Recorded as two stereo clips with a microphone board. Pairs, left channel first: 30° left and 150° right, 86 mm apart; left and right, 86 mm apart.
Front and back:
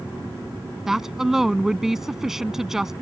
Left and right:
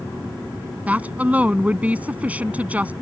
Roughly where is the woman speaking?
Right.